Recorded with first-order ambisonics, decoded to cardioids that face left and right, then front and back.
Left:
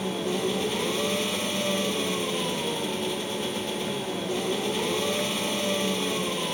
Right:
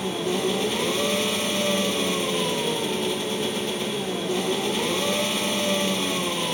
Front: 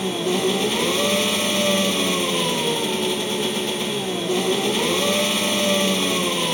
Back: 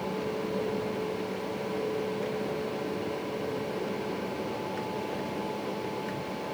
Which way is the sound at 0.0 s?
10° right.